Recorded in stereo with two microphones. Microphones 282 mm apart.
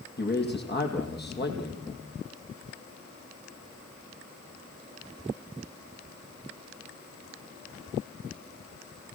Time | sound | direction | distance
0.2 | a man speaking | 35° left (ahead or behind) | 5.5 m